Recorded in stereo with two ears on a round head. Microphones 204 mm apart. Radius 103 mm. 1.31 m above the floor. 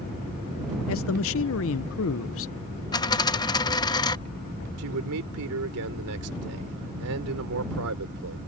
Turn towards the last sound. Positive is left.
turn(degrees=-70)  # may be behind; listen again after turning